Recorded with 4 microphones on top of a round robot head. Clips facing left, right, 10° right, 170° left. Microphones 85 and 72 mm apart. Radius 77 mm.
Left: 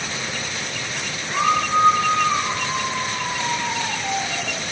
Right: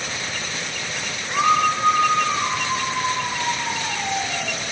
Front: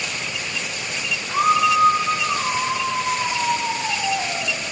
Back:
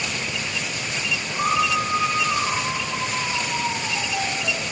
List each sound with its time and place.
1.3 s a scream: 5° right, 4.5 m; by 4.6 s straight ahead, 7 m